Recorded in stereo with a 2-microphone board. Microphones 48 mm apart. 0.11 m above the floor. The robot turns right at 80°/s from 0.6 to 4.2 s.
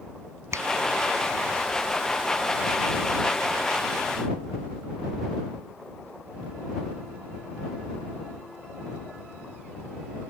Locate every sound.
0.5 s a finger snap: 70° right (ahead or behind); by 0.7 s 75° right (ahead or behind)